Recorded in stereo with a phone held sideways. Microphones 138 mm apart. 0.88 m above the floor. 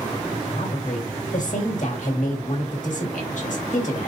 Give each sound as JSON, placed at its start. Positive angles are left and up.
{"t": 0.6, "sound": "a woman speaking", "side_deg": 65, "distance_m": 1.8}